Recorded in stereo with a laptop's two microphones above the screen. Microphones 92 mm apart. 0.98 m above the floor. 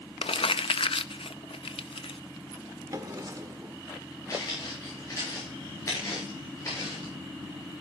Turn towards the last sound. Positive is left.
turn(degrees=35)  # may be behind; listen again after turning